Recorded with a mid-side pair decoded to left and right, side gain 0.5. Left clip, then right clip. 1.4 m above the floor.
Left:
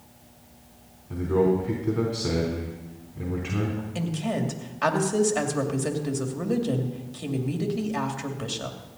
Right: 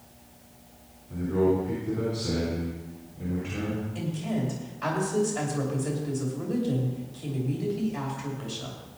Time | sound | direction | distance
1.1 | a man speaking | 60° left | 3.5 m
4.0 | a woman speaking | 65° left | 2.5 m